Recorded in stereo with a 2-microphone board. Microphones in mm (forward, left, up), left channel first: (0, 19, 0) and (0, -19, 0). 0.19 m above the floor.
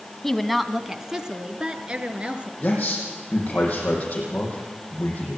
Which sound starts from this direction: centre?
A woman speaking, at 0.2 s.